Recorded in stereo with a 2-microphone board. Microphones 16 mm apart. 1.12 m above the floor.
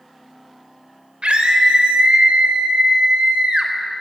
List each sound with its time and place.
1.2 s a scream: 85° right, 4 m; by 3.7 s 65° right (ahead or behind), 4 m